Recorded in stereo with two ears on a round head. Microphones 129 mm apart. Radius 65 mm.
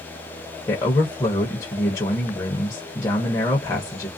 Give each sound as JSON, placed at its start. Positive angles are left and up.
{"t": 0.7, "sound": "a man speaking", "side_deg": 20, "distance_m": 0.9}